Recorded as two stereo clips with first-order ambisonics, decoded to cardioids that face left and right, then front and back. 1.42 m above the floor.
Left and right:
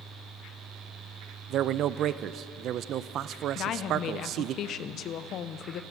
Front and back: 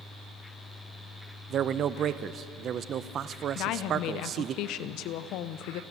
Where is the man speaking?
130° right, 0.5 m.